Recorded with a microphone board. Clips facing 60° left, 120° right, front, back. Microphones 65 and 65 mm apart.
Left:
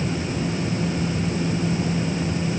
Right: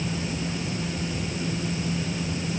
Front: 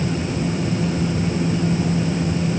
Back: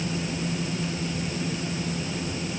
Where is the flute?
No flute in this recording.